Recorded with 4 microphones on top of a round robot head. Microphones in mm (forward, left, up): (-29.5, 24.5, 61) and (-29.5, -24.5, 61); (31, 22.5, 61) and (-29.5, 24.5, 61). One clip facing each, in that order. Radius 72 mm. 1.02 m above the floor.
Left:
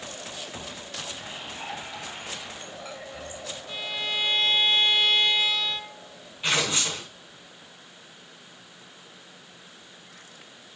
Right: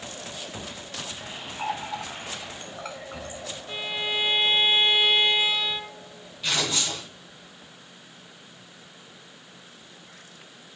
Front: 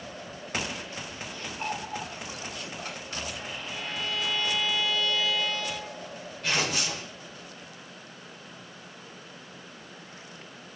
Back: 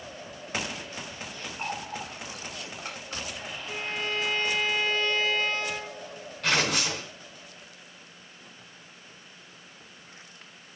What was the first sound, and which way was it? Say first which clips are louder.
A running tap: right 9 dB, front 1 dB; 105° right.